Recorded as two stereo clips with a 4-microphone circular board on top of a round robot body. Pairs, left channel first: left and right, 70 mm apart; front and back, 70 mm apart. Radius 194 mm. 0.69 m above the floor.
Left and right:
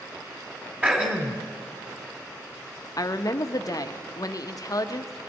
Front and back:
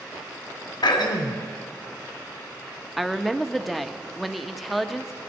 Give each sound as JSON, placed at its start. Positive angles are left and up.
{"t": 0.8, "sound": "throat clearing", "azimuth_deg": -20, "distance_m": 2.0}
{"t": 3.0, "sound": "a woman speaking", "azimuth_deg": 90, "distance_m": 1.4}